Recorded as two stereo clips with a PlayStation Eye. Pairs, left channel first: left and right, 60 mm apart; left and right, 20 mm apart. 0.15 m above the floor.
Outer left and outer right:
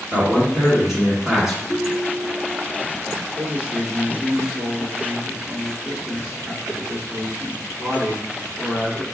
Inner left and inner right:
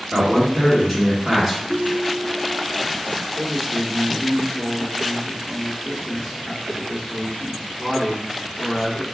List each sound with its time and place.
0.1 s a man speaking: 5° right (ahead or behind), 1.8 m
1.7 s a ringtone: 15° right (ahead or behind), 1.3 m
3.4 s a man speaking: 20° right (ahead or behind), 1.8 m